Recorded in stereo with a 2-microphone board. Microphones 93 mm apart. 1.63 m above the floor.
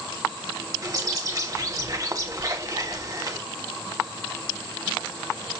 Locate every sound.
0.8 s a bird: 40° right (ahead or behind), 1.5 m